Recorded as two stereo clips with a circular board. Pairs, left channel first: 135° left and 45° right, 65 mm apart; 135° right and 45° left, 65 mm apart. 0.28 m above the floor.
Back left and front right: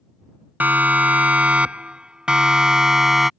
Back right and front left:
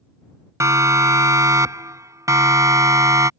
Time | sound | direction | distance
0.6 | a siren | 15° left | ?